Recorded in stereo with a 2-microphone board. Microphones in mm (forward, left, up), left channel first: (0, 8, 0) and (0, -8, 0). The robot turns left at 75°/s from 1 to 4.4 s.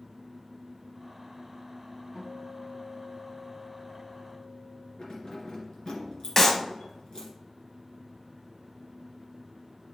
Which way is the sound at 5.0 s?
55° left (ahead or behind).